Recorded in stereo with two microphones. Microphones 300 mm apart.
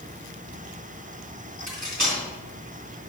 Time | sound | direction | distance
1.7 | cutlery clinking | 70° right (ahead or behind) | 3 m